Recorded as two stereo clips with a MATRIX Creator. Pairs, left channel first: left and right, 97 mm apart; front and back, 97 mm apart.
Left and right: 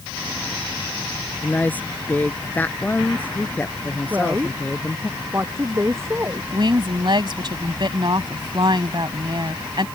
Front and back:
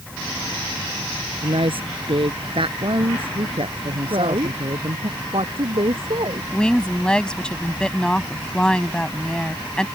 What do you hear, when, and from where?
1.4 s a woman speaking: 160° left
4.1 s a woman speaking: 155° right
6.5 s a woman speaking: 80° right